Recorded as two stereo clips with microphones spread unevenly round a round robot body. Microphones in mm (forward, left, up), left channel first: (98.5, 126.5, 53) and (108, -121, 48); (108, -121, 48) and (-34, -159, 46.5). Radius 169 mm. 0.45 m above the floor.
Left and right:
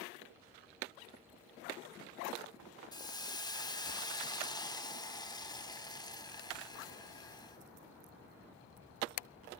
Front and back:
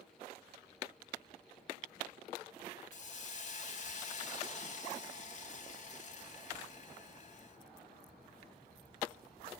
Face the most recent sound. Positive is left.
turn(degrees=20)